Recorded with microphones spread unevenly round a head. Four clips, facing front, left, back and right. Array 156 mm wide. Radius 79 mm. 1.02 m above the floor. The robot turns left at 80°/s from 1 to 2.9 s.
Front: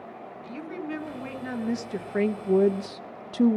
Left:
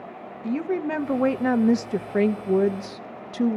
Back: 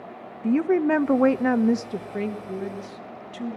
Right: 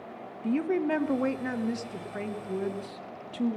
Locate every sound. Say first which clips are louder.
0.4 s a woman speaking: left 1 dB, back 16 dB; straight behind, 0.9 m; by 3.6 s 25° left, 0.9 m